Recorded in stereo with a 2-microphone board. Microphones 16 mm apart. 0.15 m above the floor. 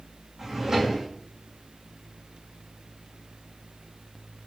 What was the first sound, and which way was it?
A drawer, 30° right (ahead or behind).